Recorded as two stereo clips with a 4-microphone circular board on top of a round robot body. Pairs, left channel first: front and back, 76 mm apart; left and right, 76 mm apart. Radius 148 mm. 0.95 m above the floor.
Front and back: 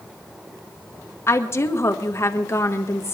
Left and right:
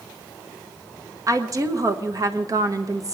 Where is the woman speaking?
55° right, 1.6 m.